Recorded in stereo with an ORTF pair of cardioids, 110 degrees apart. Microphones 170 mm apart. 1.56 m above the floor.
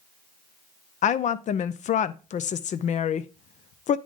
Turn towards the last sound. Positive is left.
turn(degrees=45)